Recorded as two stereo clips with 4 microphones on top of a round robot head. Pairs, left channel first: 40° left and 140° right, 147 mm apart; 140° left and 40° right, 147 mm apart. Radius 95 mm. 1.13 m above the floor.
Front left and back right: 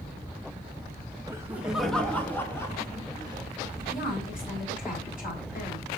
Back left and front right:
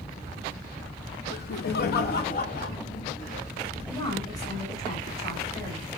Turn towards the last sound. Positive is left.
turn(degrees=75)